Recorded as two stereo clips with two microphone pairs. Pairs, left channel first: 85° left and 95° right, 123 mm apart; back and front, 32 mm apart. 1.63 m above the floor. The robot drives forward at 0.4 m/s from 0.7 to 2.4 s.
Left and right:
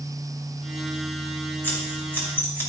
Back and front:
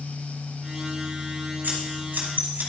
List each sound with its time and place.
1.6 s scissors: 10° left, 2.5 m